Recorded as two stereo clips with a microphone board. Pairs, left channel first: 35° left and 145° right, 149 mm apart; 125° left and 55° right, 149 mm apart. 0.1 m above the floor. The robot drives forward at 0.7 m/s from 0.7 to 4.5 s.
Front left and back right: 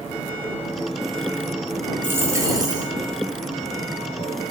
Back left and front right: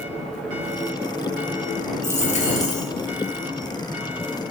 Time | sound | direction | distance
2.0 | a dropped coin | 140° left | 0.9 m